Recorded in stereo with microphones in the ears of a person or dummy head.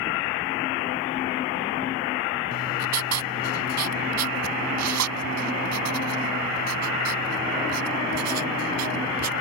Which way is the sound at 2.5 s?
90° right.